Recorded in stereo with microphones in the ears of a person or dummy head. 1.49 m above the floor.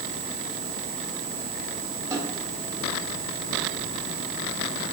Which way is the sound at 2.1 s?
15° right (ahead or behind).